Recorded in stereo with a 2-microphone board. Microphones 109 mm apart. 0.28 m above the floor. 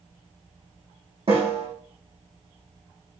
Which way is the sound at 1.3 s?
55° right (ahead or behind).